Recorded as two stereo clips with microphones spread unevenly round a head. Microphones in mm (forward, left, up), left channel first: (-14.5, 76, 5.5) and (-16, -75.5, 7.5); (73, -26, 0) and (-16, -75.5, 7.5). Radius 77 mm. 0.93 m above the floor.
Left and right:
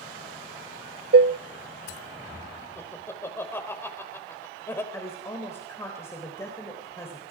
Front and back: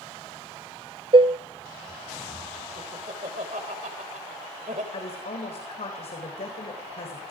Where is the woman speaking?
15° left, 3.5 m.